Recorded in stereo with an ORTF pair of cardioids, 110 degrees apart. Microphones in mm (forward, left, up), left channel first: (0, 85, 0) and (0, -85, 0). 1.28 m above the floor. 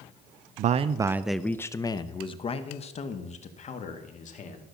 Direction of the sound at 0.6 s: 50° right.